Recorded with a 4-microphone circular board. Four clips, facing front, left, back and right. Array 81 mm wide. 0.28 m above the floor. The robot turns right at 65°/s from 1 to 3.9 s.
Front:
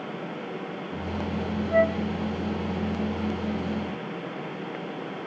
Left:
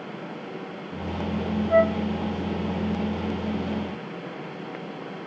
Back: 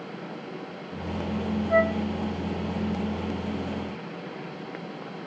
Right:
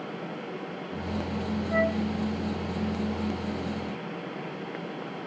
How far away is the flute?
About 6.5 m.